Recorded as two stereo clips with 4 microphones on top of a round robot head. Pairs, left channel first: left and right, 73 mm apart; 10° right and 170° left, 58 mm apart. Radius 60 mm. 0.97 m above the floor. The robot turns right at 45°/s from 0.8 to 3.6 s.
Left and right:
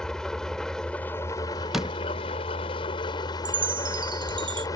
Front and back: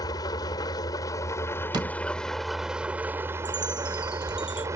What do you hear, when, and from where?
0.0 s an engine running: 5° left; by 4.8 s 130° left
1.7 s a door slam: 175° right; by 2.0 s 165° right
3.5 s a chime: 115° right; by 4.7 s 110° right